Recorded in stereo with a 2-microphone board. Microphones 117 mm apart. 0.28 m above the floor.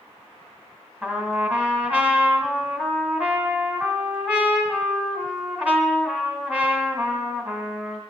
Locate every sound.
1.0 s a trumpet: 10° right (ahead or behind), 2.0 m